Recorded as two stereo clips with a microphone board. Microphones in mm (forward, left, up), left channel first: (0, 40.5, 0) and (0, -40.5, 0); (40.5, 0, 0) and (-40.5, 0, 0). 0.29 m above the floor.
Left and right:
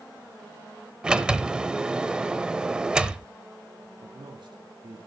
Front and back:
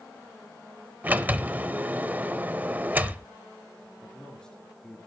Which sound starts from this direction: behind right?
A sliding door, at 1.0 s.